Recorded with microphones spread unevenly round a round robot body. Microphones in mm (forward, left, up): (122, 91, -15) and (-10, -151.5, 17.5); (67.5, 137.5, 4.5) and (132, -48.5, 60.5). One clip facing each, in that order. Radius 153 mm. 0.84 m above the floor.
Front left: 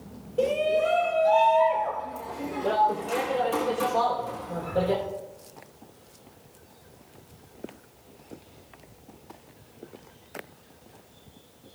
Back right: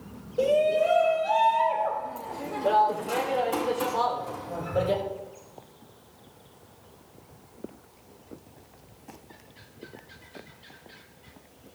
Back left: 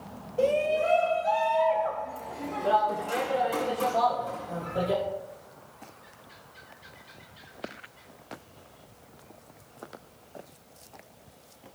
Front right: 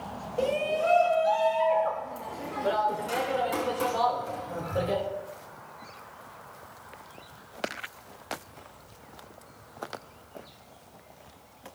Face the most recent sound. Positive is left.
turn(degrees=-30)